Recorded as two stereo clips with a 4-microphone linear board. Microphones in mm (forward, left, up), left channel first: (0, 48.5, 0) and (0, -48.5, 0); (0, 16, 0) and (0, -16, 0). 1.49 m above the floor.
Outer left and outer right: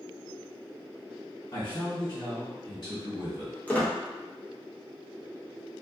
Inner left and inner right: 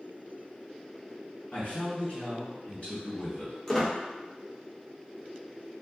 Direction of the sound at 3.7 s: 15° left (ahead or behind).